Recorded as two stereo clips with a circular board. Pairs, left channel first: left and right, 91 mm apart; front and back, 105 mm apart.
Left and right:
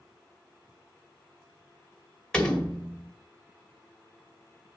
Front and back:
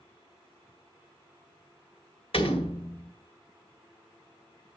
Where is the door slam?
10° left, 1.8 m.